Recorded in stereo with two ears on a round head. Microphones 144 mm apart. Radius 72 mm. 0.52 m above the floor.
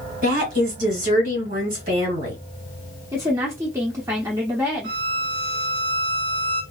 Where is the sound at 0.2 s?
55° right (ahead or behind), 1.7 m.